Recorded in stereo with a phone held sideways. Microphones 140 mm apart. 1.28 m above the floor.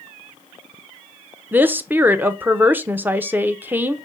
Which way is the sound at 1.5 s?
15° right (ahead or behind).